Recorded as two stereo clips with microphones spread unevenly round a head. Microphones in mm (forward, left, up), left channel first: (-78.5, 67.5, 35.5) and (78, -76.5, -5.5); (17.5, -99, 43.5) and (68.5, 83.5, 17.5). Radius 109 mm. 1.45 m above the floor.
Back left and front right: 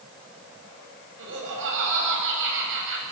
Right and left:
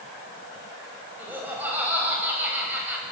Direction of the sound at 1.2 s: 5° right.